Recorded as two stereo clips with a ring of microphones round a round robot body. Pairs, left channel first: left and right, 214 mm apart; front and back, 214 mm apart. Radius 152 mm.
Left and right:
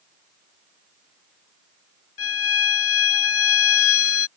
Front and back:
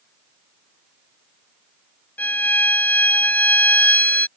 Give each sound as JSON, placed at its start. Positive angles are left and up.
{"t": 2.2, "sound": "a violin", "azimuth_deg": 80}